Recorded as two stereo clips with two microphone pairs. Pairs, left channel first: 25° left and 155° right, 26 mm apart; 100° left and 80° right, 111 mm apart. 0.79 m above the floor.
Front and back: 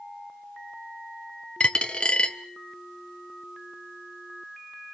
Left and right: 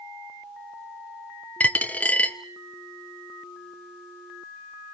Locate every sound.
1.6 s a dropped coin: 30° left, 0.9 m